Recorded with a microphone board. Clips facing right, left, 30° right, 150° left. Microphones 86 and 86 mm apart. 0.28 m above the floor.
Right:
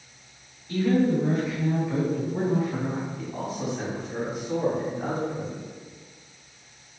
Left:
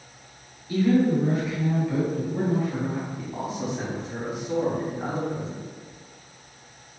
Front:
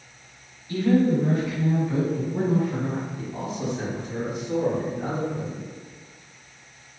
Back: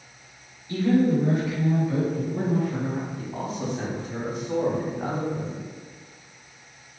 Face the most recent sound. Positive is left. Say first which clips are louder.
# left 1 dB, even
turn(degrees=165)